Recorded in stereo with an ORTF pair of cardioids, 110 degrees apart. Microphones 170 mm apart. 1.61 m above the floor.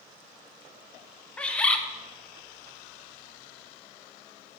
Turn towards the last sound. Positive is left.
turn(degrees=5)